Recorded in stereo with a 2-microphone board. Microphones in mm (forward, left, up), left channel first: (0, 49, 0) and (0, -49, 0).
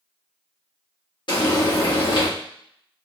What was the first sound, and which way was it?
Frying, 50° left (ahead or behind).